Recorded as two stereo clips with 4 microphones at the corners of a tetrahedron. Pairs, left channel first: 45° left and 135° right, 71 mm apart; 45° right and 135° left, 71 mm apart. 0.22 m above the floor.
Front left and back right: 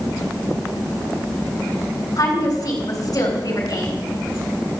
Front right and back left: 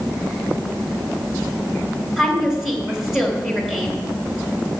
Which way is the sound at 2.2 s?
50° left.